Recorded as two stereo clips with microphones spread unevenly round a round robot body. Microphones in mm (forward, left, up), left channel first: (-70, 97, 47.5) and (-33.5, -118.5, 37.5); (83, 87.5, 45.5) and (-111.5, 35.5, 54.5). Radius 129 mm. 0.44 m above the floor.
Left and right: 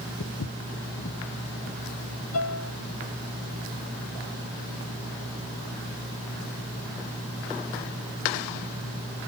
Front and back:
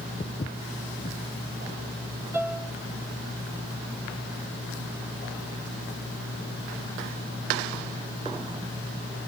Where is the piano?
115° left, 3 m.